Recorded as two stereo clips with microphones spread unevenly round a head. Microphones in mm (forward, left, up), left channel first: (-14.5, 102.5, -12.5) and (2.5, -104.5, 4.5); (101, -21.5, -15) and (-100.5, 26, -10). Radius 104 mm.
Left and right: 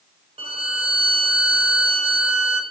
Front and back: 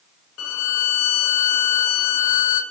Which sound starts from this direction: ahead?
A violin, at 0.4 s.